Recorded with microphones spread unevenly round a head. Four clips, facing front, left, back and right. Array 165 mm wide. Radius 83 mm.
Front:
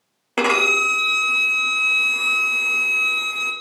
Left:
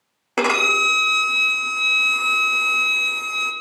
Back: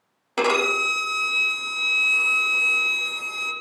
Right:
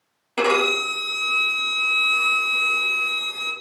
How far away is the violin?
About 0.6 m.